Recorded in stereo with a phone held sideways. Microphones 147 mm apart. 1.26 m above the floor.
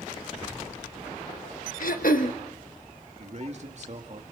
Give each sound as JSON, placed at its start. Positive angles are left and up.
{"t": 1.8, "sound": "throat clearing", "side_deg": 70, "distance_m": 1.4}
{"t": 3.2, "sound": "a man speaking", "side_deg": -50, "distance_m": 2.0}